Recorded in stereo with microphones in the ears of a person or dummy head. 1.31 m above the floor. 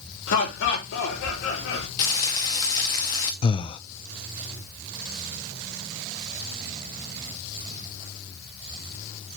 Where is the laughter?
70° left (ahead or behind), 4 m.